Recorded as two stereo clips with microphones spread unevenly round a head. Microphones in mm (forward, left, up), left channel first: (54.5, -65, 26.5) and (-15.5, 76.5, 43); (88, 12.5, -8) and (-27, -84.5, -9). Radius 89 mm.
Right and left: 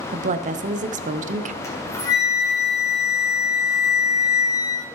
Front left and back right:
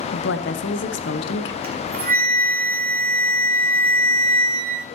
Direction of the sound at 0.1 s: 70° left.